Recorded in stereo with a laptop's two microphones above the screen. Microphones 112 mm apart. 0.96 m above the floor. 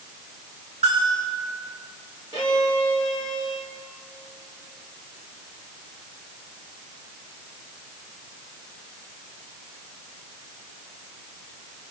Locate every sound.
0.8 s a bell: 65° right (ahead or behind), 7.5 m
2.3 s a violin: 35° right (ahead or behind), 3 m